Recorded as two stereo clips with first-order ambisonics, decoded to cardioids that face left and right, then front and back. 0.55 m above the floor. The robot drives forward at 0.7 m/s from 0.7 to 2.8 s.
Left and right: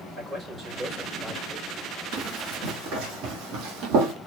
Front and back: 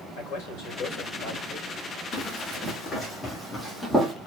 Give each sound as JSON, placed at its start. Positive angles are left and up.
{"t": 0.2, "sound": "a man speaking", "azimuth_deg": -15, "distance_m": 3.0}
{"t": 2.1, "sound": "running footsteps", "azimuth_deg": -70, "distance_m": 3.0}